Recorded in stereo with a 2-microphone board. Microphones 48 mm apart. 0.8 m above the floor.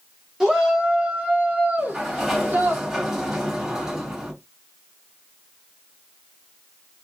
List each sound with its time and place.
0.4 s a shout: 15° right (ahead or behind), 1.6 m; by 2.8 s 45° right (ahead or behind), 1.1 m
1.8 s a sliding door: 10° right (ahead or behind), 1.3 m